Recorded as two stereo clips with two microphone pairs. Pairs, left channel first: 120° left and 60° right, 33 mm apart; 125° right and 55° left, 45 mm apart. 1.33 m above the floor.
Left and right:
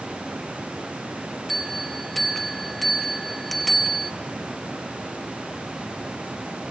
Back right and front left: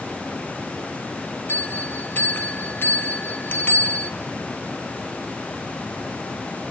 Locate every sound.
1.5 s a bell: 155° right, 1.0 m